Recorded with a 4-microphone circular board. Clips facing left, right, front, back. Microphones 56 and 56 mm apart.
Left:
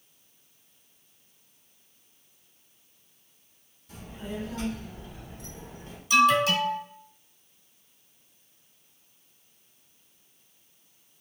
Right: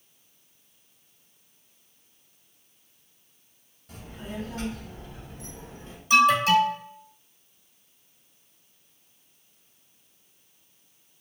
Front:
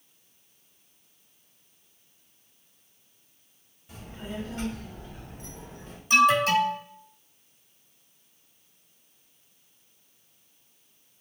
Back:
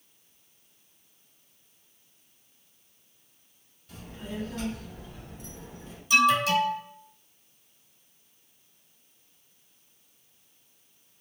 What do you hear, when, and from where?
3.9 s a child speaking: 65° right, 1.9 m; by 6.0 s 30° right, 2.5 m
6.1 s an alarm: 45° right, 1.2 m